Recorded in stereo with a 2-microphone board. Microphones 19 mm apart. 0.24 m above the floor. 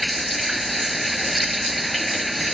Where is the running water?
Centre (ahead or behind).